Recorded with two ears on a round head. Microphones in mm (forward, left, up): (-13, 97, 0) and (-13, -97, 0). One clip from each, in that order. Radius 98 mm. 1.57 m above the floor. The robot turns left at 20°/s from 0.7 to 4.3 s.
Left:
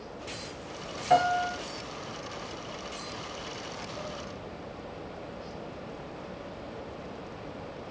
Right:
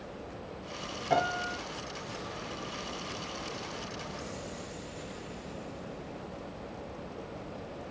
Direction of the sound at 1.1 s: 35° left (ahead or behind).